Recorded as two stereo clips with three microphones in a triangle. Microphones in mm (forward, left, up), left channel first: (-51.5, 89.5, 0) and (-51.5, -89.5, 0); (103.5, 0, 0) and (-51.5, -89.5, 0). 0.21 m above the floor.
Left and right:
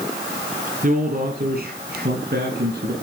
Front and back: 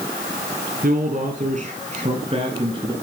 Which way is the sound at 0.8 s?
125° right.